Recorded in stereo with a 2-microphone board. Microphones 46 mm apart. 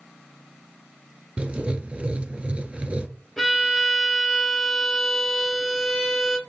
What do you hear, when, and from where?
1.4 s writing: 25° right (ahead or behind), 0.5 m
3.4 s a violin: 5° left (ahead or behind), 1.0 m